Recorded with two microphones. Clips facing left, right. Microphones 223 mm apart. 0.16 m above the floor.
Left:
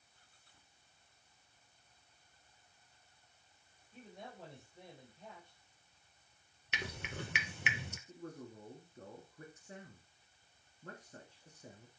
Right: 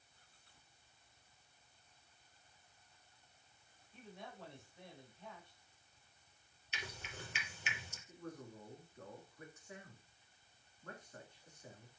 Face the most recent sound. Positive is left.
turn(degrees=35)  # may be behind; listen again after turning